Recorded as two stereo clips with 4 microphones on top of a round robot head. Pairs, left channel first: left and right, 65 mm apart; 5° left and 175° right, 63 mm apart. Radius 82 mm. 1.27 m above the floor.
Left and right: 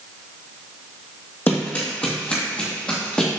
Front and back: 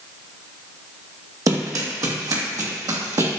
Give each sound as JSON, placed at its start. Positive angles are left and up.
{"t": 1.5, "sound": "running footsteps", "azimuth_deg": 155, "distance_m": 2.0}